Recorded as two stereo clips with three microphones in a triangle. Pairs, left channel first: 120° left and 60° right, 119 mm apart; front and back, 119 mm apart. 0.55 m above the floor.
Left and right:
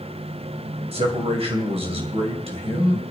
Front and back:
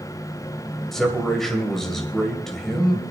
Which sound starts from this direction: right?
A man speaking, at 0.9 s.